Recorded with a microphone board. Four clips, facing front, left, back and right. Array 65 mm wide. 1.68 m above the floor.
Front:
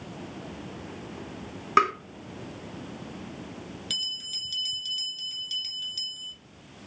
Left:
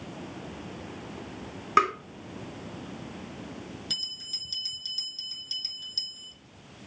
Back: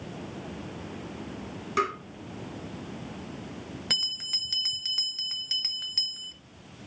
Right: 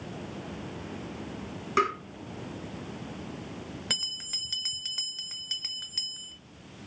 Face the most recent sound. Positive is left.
turn(degrees=-135)